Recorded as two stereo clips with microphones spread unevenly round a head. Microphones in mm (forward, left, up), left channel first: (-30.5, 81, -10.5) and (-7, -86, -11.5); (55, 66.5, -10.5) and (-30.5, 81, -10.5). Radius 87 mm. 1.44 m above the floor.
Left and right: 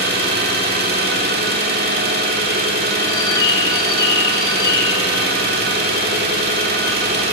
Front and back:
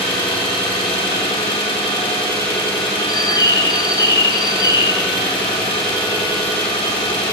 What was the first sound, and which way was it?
An engine running, 50° right.